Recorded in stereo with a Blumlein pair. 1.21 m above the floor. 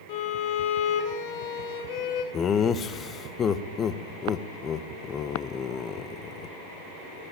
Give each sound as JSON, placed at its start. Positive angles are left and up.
{"t": 0.1, "sound": "a violin", "azimuth_deg": 50, "distance_m": 2.0}
{"t": 2.3, "sound": "laughter", "azimuth_deg": 25, "distance_m": 0.8}